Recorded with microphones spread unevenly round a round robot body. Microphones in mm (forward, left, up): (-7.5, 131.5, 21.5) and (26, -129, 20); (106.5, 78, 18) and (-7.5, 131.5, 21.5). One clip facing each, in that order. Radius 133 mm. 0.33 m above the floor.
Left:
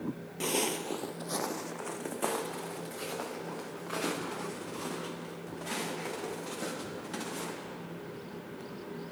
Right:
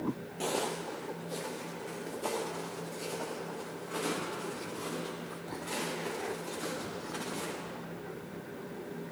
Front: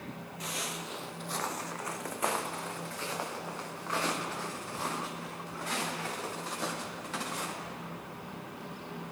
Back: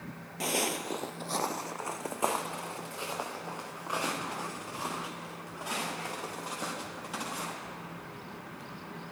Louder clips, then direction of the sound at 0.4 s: Left 2 dB, back 9 dB; 175° left.